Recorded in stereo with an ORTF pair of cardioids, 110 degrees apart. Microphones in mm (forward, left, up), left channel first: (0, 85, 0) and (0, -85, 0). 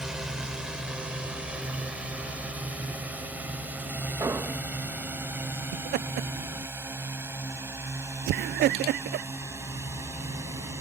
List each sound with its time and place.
0.0 s a drone: 5° right; by 10.8 s 15° right
4.2 s an explosion: 20° right
5.7 s laughter: 65° right